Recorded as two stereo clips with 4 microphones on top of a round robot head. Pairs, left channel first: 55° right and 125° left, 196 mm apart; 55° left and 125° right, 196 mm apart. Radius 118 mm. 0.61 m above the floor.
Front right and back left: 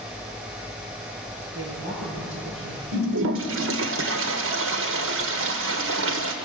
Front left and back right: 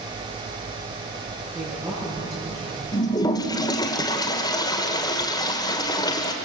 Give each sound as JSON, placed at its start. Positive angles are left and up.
{"t": 1.6, "sound": "a woman speaking", "azimuth_deg": 160, "distance_m": 9.0}
{"t": 2.9, "sound": "a toilet flushing", "azimuth_deg": 125, "distance_m": 1.8}